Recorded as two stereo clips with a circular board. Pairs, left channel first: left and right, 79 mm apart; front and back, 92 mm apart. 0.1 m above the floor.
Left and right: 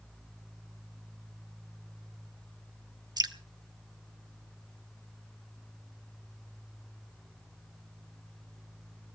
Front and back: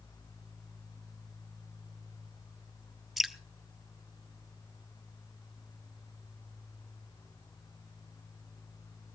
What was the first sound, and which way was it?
Dripping, 90° right.